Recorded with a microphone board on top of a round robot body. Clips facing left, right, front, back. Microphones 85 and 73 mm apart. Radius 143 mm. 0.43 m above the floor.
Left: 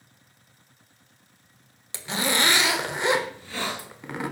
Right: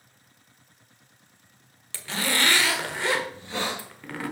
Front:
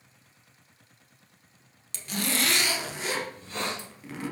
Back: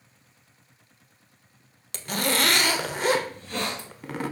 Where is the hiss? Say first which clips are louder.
Right 1 dB, back 2 dB; 155° right, 5 m.